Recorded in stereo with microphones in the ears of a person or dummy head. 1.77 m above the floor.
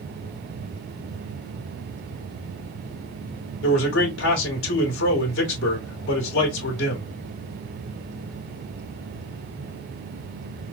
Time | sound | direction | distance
3.6 | a man speaking | 85° left | 2 m